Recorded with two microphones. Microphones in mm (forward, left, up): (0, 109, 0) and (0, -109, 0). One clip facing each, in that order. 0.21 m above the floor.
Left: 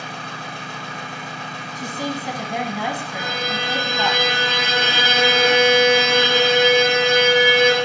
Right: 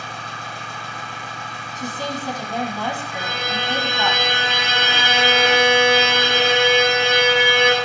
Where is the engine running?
65° left (ahead or behind), 4 m.